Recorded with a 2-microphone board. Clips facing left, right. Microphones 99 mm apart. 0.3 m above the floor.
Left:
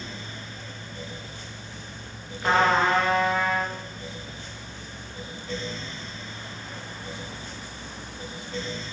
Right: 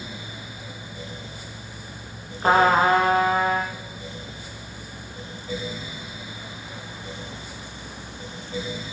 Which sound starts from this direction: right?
A trumpet, at 2.4 s.